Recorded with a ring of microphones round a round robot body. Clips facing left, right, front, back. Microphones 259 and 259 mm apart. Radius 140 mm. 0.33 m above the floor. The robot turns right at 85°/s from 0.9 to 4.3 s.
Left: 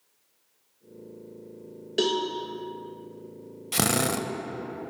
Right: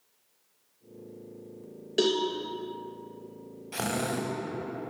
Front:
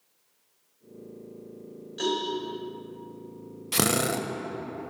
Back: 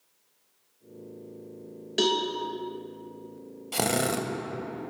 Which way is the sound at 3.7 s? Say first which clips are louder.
Left 4 dB, front 1 dB; 55° left.